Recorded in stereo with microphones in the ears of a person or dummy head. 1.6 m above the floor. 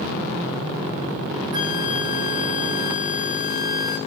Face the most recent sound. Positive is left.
turn(degrees=-25)  # may be behind; listen again after turning